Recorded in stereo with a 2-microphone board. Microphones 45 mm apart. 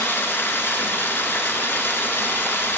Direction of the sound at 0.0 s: 55° left (ahead or behind).